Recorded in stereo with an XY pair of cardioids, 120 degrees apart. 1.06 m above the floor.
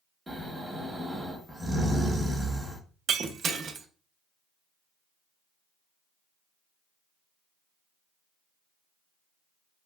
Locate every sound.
0.3 s snoring: 15° right, 1.2 m
3.1 s breaking glass: 45° right, 0.6 m